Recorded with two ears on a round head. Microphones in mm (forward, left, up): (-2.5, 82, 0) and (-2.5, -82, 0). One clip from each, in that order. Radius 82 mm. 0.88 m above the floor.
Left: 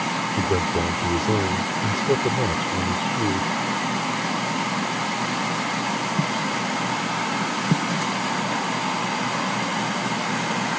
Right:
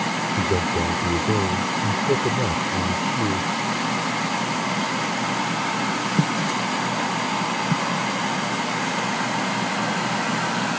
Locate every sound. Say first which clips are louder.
0.4 s a man speaking: even; 50° left (ahead or behind)